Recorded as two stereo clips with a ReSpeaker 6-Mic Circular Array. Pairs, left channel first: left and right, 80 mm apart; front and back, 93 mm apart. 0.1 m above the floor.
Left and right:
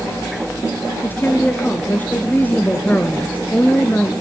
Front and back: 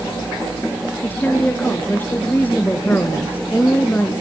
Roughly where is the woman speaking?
Ahead left.